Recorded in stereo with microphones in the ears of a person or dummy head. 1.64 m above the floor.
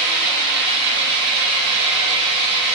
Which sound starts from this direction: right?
An engine running, at 0.0 s.